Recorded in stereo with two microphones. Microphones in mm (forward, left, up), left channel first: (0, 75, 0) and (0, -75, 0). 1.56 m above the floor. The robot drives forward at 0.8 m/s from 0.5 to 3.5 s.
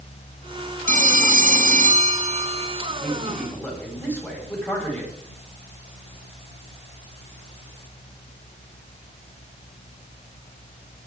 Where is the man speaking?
5° left (ahead or behind), 8 m.